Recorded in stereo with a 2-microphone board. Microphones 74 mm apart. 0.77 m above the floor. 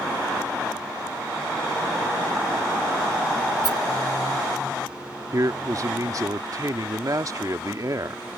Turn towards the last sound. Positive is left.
turn(degrees=-50)  # may be behind; listen again after turning